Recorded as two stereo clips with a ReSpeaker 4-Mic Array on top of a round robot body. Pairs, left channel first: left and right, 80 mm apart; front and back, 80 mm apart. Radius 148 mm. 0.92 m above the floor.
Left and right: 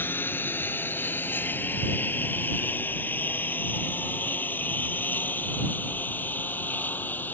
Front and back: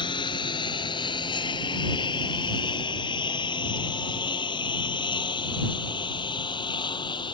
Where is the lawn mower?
25° left; by 7.4 s 20° left.